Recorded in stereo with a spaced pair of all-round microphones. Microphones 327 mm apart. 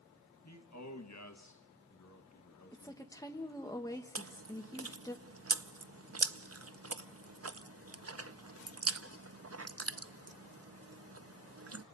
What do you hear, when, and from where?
0.5 s a man speaking: 55° left (ahead or behind), 1.3 m
2.7 s a woman speaking: 10° left (ahead or behind), 1.5 m
4.2 s chewing: 45° right (ahead or behind), 0.5 m